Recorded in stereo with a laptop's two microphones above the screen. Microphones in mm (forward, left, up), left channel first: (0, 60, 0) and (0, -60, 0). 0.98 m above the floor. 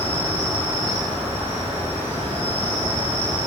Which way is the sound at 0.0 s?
50° right (ahead or behind).